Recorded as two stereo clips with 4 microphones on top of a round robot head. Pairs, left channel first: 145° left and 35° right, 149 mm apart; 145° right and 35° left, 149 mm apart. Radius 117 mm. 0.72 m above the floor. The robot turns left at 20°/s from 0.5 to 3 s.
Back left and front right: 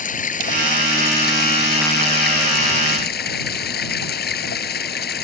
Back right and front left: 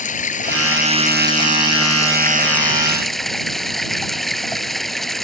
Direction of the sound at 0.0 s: Straight behind.